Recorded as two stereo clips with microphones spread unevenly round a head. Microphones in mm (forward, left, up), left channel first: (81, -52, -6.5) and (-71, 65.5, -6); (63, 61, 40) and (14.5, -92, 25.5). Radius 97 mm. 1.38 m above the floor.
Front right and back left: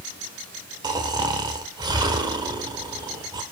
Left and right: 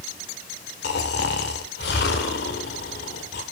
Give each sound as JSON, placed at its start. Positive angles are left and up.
{"t": 0.8, "sound": "snoring", "azimuth_deg": 75, "distance_m": 1.9}